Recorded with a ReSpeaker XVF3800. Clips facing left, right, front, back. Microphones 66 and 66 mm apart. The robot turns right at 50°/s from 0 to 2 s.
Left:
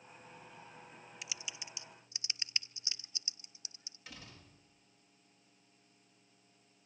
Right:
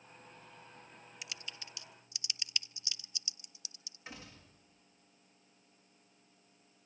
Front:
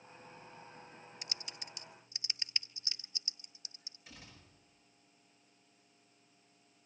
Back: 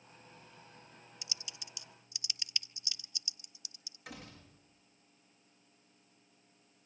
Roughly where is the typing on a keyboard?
Ahead.